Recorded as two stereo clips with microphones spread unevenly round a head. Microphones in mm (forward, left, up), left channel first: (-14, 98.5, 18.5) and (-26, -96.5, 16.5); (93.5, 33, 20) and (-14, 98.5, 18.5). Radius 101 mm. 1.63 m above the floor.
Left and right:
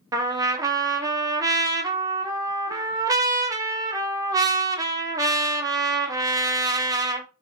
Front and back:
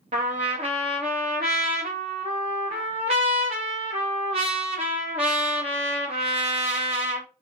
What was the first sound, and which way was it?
A trumpet, 165° right.